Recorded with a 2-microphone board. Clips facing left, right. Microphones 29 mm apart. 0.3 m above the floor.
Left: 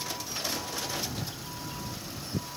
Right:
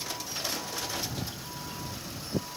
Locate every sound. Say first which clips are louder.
1.2 s footsteps: even; 85° right; by 2.5 s 80° right